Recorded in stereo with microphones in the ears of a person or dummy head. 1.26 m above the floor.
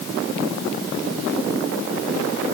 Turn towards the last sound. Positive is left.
No sound to turn to.